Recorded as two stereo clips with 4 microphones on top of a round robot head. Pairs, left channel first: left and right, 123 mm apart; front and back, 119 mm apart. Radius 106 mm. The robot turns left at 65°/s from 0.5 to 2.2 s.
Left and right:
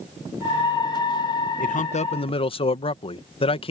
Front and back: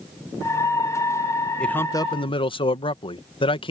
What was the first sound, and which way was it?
A man speaking, 85° left.